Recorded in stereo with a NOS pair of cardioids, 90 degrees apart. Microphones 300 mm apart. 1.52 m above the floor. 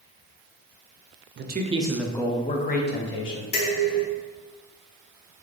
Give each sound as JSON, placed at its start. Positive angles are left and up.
{"t": 1.4, "sound": "a man speaking", "azimuth_deg": -40, "distance_m": 0.6}
{"t": 3.5, "sound": "dishes clattering", "azimuth_deg": 50, "distance_m": 1.6}